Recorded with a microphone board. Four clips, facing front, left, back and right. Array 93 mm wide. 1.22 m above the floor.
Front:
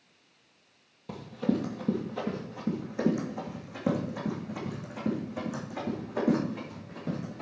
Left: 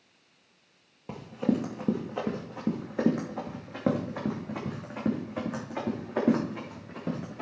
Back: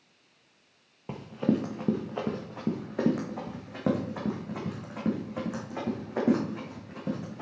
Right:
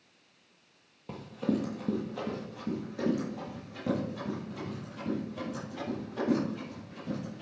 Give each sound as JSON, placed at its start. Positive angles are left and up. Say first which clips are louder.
{"t": 1.1, "sound": "running footsteps", "louder": "left 3 dB, back 2 dB", "azimuth_deg": 155, "distance_m": 1.4}